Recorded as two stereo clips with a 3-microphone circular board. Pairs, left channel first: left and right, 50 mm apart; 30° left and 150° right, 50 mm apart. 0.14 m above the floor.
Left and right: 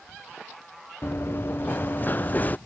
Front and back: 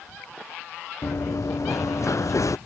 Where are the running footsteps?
50° left; by 2.6 s 35° left.